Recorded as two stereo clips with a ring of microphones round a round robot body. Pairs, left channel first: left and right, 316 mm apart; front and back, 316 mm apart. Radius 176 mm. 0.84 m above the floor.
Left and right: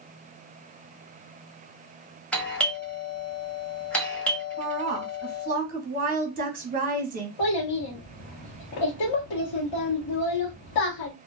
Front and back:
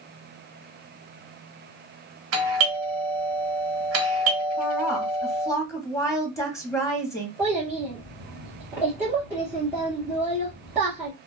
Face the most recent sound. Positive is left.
turn(degrees=95)